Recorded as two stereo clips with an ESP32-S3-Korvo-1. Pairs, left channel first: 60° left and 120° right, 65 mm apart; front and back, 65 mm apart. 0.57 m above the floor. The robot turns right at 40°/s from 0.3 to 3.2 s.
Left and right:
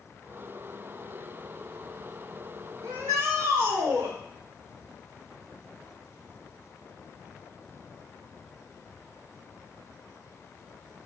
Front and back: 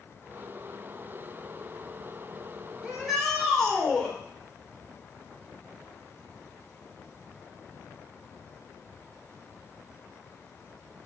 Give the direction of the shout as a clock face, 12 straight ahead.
3 o'clock.